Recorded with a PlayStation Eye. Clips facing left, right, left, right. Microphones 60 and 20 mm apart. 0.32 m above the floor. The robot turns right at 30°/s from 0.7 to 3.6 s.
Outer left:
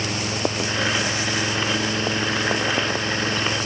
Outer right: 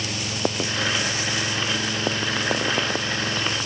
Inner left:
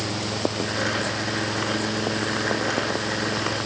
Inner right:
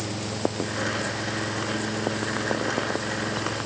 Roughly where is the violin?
No violin in this recording.